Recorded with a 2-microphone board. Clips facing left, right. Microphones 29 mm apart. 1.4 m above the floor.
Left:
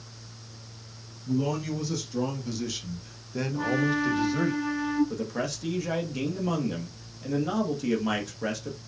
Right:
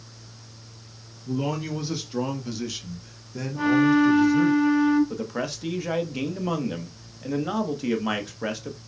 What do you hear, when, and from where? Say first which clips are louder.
1.2 s a man speaking: even; 50° right (ahead or behind), 1.4 m; by 4.5 s 50° left (ahead or behind), 1.4 m
3.5 s a flute: right 8 dB; 45° right (ahead or behind), 2.5 m
5.1 s a man speaking: right 1 dB; 20° right (ahead or behind), 0.9 m